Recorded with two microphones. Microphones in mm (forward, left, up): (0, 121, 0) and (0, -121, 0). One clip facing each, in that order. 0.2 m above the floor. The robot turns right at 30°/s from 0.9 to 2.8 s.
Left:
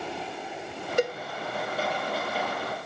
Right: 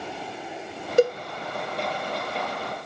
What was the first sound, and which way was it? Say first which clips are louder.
A cowbell: right 7 dB; 35° right (ahead or behind).